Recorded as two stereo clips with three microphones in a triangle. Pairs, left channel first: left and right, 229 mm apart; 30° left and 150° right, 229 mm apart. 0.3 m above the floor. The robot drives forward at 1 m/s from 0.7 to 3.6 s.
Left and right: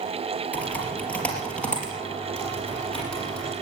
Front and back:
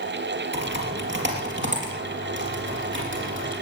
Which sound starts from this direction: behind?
Typing on a keyboard, at 0.5 s.